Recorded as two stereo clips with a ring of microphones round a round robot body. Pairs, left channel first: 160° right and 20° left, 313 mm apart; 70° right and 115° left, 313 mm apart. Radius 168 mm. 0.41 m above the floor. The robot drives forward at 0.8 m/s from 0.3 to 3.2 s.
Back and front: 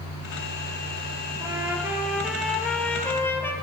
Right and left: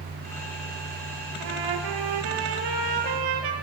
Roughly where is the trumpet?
Left.